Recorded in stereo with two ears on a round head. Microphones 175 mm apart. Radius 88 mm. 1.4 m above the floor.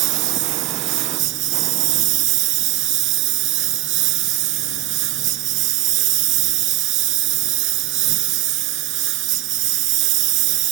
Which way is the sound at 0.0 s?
70° right (ahead or behind).